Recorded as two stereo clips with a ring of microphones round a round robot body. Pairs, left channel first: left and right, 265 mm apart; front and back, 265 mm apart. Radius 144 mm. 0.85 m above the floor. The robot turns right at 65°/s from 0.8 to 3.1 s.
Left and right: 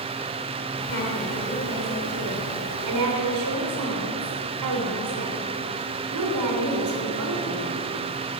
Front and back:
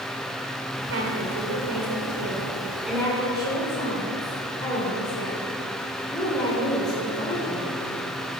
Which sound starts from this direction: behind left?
A woman speaking, at 0.9 s.